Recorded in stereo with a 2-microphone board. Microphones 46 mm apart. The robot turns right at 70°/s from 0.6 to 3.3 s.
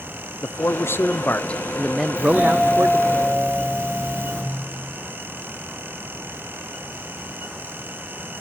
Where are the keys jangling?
I don't hear keys jangling.